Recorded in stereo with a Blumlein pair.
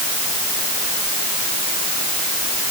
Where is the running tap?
No running tap in this recording.